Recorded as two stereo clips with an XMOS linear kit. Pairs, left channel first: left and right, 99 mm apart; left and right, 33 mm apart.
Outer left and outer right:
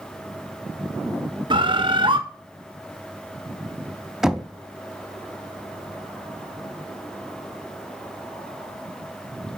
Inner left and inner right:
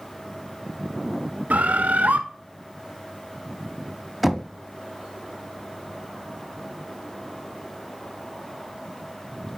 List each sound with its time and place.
1.5 s a bird: 60° right (ahead or behind), 0.6 m
4.2 s knocking: 5° right (ahead or behind), 0.7 m